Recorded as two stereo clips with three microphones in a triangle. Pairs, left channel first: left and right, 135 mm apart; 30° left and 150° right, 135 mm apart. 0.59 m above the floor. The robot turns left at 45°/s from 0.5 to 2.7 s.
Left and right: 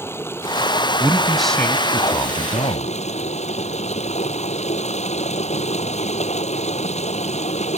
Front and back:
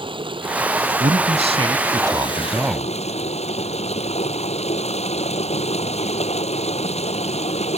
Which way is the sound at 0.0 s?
160° left.